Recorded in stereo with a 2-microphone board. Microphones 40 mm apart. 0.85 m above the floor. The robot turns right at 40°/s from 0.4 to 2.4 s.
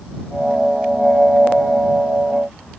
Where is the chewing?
I don't hear chewing.